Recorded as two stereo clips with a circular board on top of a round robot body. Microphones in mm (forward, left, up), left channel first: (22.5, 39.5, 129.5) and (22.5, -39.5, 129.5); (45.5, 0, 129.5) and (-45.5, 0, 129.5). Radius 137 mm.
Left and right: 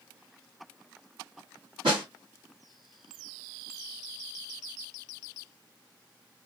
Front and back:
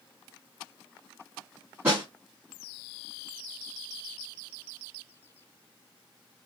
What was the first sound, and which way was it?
A snare drum, 110° right.